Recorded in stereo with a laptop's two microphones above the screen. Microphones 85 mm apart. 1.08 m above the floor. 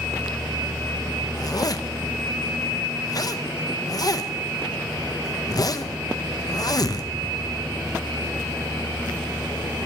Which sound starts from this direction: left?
A zipper, at 1.4 s.